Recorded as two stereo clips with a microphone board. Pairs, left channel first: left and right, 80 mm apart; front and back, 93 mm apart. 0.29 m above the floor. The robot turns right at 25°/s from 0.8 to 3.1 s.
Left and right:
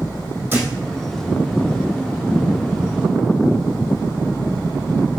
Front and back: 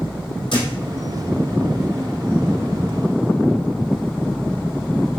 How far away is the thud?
About 3.5 m.